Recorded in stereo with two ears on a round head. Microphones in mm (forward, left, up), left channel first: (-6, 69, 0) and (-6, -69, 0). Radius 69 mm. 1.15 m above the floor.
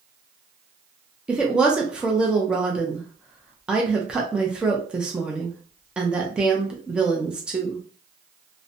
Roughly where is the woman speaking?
Centre.